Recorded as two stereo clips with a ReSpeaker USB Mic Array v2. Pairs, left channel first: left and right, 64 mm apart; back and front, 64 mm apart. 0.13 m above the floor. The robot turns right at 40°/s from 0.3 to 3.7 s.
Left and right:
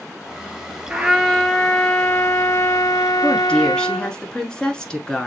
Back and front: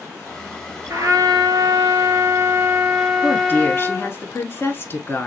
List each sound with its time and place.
0.9 s a trumpet: 15° right, 1.3 m; by 4.2 s 95° left, 1.3 m
3.2 s a woman speaking: 140° left, 1.4 m; by 5.3 s 160° left, 1.4 m